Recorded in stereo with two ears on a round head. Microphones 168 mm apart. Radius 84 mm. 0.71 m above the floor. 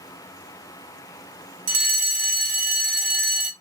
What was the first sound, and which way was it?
A fire alarm, 45° right (ahead or behind).